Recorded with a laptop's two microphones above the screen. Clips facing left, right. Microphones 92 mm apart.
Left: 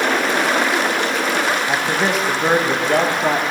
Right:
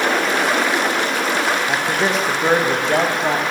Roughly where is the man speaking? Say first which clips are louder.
Even; centre.